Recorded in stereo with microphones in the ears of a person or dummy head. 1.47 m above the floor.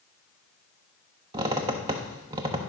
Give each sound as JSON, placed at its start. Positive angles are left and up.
{"t": 1.3, "sound": "a squeak", "side_deg": -20, "distance_m": 0.7}